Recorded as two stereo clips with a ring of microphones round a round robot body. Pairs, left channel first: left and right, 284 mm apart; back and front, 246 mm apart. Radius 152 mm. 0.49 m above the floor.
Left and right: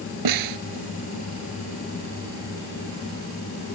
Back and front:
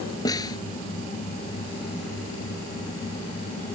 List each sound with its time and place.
0.2 s a snare drum: 100° right